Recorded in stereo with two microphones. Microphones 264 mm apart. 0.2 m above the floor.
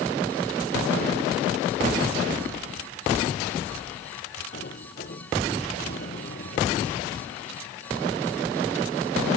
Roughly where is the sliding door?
Left.